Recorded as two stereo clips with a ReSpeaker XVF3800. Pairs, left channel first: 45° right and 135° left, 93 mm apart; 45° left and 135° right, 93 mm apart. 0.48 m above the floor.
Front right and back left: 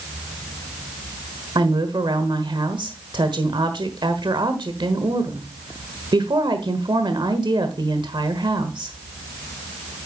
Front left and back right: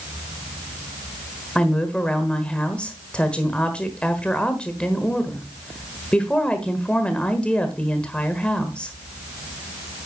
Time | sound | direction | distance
1.6 | a woman speaking | 120° left | 1.4 m